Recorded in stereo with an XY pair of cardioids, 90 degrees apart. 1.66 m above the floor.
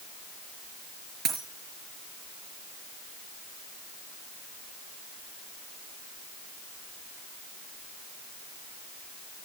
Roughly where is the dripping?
No dripping in this recording.